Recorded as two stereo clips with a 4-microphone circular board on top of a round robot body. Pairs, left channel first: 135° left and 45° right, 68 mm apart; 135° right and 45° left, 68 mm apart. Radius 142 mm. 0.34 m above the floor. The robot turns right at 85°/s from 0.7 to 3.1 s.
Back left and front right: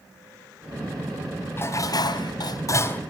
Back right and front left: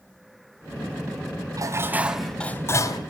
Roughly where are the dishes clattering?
Left.